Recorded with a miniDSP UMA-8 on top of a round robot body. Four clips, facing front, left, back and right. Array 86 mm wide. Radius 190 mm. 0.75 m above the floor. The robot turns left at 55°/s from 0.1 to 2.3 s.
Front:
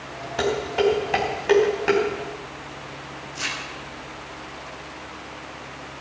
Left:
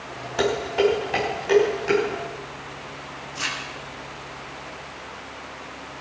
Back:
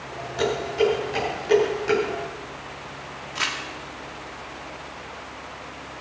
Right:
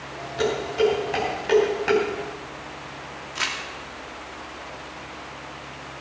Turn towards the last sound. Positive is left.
turn(degrees=-145)